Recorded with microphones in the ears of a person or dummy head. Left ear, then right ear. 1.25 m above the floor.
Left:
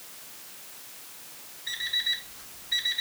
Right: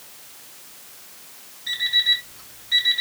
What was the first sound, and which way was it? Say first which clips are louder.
An alarm clock: right 9 dB; 25° right (ahead or behind).